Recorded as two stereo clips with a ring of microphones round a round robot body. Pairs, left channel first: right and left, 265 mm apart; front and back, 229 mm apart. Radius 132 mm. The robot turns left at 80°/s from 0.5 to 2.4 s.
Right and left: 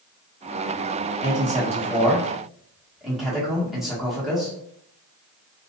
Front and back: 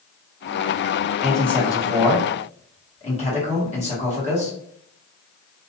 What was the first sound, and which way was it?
A man speaking, 100° left.